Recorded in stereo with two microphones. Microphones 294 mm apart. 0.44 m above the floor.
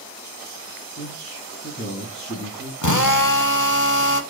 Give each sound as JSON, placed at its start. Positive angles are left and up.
{"t": 1.0, "sound": "a man speaking", "side_deg": 35, "distance_m": 4.0}
{"t": 2.8, "sound": "a drill", "side_deg": 70, "distance_m": 0.9}